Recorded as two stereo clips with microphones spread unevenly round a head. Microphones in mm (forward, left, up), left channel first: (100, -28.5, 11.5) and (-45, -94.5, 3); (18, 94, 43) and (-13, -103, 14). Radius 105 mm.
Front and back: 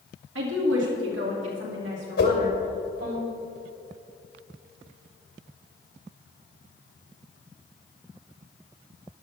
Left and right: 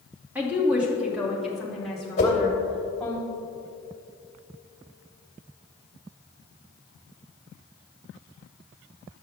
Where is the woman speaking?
Straight behind, 2.5 m; by 3.2 s 165° left, 4 m.